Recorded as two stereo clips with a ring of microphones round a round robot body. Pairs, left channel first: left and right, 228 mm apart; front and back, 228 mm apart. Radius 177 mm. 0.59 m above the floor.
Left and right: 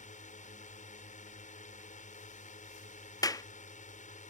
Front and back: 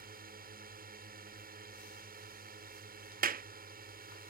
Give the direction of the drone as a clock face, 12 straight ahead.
7 o'clock.